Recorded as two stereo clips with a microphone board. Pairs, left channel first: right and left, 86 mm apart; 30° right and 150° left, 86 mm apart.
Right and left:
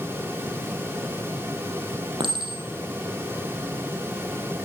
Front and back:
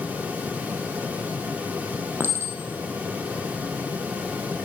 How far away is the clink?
About 3.5 m.